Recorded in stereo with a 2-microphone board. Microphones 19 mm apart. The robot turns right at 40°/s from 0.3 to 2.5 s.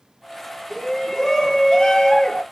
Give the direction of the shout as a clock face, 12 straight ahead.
12 o'clock.